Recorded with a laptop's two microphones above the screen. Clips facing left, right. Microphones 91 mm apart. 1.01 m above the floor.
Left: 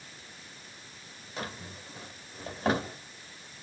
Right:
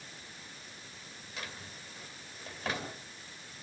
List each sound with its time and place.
1.4 s a drawer: 35° left (ahead or behind), 1.5 m